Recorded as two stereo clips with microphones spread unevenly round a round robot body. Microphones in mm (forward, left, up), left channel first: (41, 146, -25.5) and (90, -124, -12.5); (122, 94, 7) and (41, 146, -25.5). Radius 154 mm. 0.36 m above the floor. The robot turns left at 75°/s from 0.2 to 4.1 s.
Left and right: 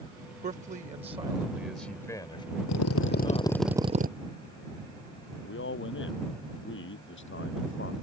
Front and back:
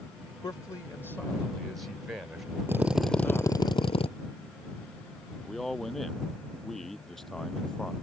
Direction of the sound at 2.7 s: 80° left.